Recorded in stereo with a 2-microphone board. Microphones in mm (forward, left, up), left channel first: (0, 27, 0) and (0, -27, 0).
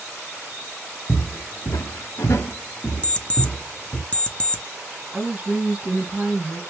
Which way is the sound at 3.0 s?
25° left (ahead or behind).